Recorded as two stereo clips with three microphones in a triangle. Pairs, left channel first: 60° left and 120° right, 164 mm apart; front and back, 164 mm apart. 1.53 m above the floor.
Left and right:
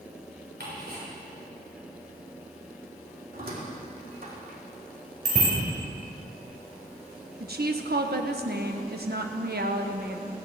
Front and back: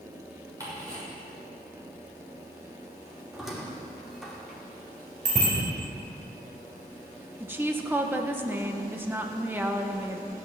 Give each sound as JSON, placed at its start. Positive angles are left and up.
{"t": 0.6, "sound": "ticking", "azimuth_deg": -110, "distance_m": 6.5}
{"t": 3.3, "sound": "a squeak", "azimuth_deg": -90, "distance_m": 2.5}
{"t": 5.2, "sound": "a bicycle bell", "azimuth_deg": -150, "distance_m": 5.0}
{"t": 7.4, "sound": "a woman speaking", "azimuth_deg": -105, "distance_m": 1.2}